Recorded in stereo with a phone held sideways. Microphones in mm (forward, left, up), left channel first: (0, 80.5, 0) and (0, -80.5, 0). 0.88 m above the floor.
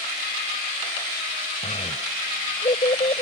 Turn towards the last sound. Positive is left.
turn(degrees=45)  # may be behind; listen again after turning